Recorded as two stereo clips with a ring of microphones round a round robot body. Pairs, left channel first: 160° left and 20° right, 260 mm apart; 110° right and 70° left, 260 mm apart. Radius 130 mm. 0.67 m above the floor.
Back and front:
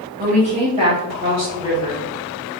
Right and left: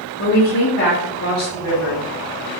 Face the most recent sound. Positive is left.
turn(degrees=-105)